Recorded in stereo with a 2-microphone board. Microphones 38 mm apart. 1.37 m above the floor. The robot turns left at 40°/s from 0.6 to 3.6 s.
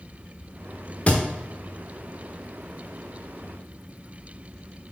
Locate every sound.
1.1 s a thud: 35° left (ahead or behind), 1.2 m